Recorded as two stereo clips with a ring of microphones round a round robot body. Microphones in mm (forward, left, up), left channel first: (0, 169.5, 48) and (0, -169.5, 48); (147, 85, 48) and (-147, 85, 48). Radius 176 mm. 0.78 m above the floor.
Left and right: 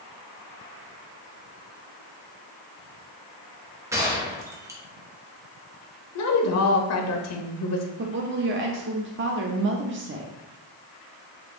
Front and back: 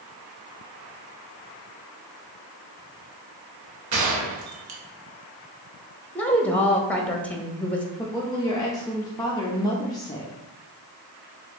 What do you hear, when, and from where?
3.9 s a gunshot: 170° right, 1.0 m
6.2 s a woman speaking: 85° left, 1.0 m
8.0 s a woman speaking: 70° right, 0.6 m